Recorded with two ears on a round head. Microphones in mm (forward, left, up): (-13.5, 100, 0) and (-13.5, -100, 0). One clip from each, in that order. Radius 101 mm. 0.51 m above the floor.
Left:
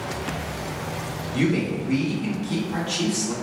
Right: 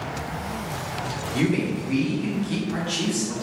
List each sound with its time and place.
1.3 s a man speaking: centre (ahead or behind), 0.9 m